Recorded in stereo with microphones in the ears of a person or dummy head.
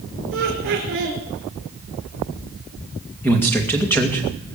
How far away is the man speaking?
About 2 m.